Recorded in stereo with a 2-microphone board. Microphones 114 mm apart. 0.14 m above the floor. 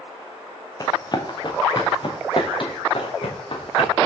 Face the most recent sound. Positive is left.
turn(degrees=55)  # may be behind; listen again after turning